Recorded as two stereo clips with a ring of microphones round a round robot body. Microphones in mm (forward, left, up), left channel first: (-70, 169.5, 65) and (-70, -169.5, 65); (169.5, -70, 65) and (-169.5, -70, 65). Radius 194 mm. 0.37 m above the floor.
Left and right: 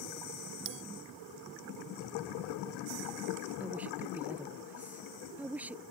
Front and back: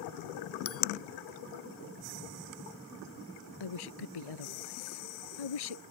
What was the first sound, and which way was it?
A bell, 50° right.